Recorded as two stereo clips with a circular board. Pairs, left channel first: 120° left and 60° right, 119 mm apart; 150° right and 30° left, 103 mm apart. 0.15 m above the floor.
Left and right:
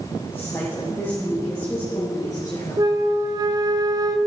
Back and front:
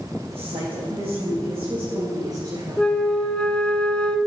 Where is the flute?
80° right, 0.8 m.